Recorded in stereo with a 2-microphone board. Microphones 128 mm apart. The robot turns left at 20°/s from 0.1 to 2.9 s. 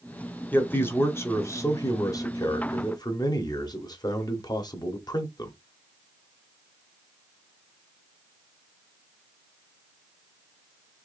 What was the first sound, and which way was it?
A man speaking, 155° left.